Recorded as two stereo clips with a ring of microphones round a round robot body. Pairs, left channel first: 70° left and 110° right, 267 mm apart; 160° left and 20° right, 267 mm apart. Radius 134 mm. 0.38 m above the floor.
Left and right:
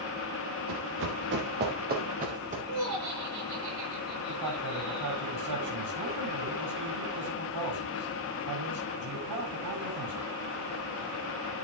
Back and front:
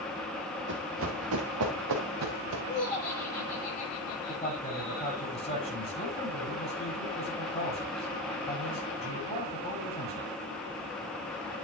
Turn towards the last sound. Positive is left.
turn(degrees=-135)